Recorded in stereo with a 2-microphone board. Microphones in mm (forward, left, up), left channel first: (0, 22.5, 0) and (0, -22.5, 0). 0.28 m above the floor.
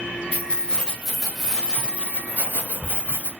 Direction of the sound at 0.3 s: 30° left (ahead or behind).